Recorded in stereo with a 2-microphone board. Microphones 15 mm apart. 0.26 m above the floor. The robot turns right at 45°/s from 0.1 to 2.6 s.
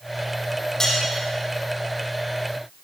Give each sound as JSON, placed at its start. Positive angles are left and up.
{"t": 0.8, "sound": "cutlery clinking", "side_deg": 30, "distance_m": 5.5}